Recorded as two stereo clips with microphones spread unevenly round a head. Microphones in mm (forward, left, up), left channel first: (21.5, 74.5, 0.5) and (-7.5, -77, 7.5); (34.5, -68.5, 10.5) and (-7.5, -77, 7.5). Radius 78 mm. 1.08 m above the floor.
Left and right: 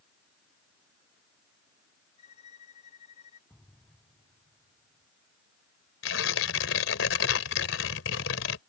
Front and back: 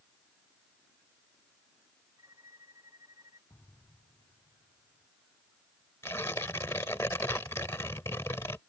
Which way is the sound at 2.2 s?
135° left.